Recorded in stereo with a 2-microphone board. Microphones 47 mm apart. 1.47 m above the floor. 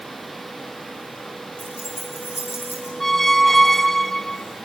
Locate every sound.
1.6 s keys jangling: 55° left (ahead or behind), 6 m; by 2.9 s 75° left (ahead or behind), 6 m
3.0 s a squeak: 5° left (ahead or behind), 0.6 m